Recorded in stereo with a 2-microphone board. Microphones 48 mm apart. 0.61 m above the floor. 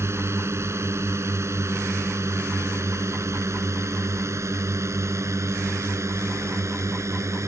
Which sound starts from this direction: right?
A drone, at 0.0 s.